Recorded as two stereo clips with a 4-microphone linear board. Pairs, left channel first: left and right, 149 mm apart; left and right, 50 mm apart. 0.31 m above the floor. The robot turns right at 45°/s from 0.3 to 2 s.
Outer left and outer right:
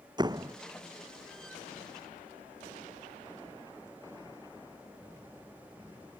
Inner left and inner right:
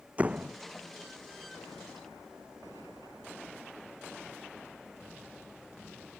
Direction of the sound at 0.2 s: 30° right (ahead or behind).